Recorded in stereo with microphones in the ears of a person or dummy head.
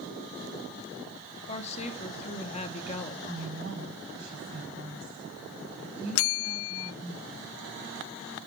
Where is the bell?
75° left (ahead or behind), 0.6 m.